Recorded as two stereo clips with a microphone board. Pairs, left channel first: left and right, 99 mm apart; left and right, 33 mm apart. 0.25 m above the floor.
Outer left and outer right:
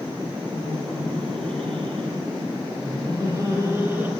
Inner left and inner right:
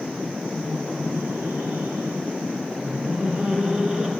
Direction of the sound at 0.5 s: 70° right (ahead or behind).